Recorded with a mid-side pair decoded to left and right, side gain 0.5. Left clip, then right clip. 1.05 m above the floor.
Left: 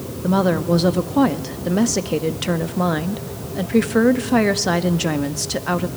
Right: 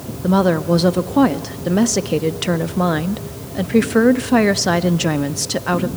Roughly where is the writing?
No writing in this recording.